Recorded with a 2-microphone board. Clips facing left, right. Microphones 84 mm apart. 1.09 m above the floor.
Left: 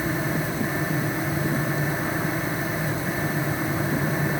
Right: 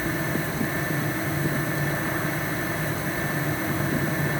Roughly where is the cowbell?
I don't hear a cowbell.